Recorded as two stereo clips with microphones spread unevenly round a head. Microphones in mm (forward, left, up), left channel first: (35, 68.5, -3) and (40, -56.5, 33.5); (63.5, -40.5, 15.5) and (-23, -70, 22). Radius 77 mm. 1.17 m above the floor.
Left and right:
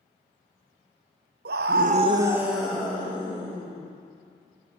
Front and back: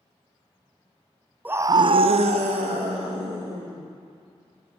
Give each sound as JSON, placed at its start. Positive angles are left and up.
{"t": 1.4, "sound": "a scream", "azimuth_deg": -90, "distance_m": 0.6}